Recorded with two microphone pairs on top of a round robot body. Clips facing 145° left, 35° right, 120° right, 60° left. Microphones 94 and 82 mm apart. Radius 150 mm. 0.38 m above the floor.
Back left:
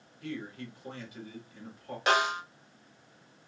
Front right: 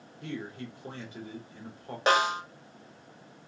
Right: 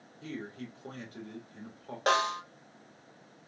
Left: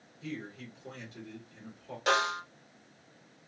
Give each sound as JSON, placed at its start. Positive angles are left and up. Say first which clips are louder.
{"t": 0.2, "sound": "a man speaking", "louder": "front right 1 dB, right 1 dB", "azimuth_deg": -85, "distance_m": 2.5}
{"t": 2.1, "sound": "a snare drum", "louder": "front right 2 dB, right 1 dB", "azimuth_deg": -85, "distance_m": 2.0}